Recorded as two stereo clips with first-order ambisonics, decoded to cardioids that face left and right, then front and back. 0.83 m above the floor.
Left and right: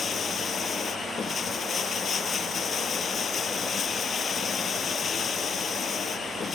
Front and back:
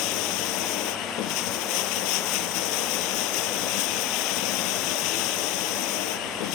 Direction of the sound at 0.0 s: 20° left.